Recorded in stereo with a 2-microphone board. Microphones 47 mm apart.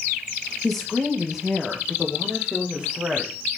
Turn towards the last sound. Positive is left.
turn(degrees=-20)  # may be behind; listen again after turning